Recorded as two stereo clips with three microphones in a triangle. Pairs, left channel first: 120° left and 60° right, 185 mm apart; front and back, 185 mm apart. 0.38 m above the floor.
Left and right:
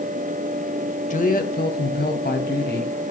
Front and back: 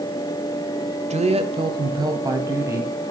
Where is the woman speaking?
145° left, 1.3 m; by 2.9 s 105° left, 2.5 m.